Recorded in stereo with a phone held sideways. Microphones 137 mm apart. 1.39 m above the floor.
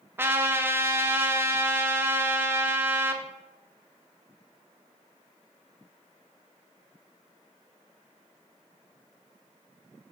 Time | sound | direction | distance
0.2 | a trumpet | 15° right (ahead or behind) | 0.7 m